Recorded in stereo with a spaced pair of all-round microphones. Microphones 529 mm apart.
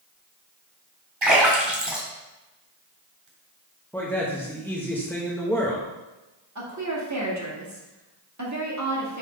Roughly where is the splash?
Right.